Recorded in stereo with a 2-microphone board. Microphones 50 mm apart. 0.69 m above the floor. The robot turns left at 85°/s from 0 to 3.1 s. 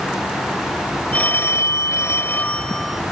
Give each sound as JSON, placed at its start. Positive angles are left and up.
{"t": 1.1, "sound": "a phone ringing", "azimuth_deg": 150}